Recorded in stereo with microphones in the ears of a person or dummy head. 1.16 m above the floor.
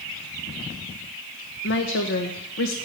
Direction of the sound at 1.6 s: 60° left (ahead or behind).